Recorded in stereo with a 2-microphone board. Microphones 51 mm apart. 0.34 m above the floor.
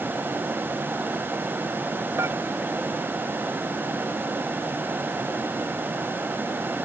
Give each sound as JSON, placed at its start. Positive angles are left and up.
{"t": 2.2, "sound": "dishes clattering", "side_deg": -65}